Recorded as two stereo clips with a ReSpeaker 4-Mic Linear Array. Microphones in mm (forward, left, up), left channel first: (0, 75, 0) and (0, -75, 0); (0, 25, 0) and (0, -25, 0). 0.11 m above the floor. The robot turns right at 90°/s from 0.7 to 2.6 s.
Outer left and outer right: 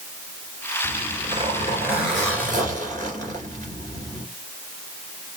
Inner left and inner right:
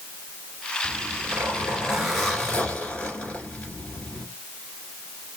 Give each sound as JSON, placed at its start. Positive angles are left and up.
{"t": 0.8, "sound": "a zipper", "azimuth_deg": -120, "distance_m": 2.0}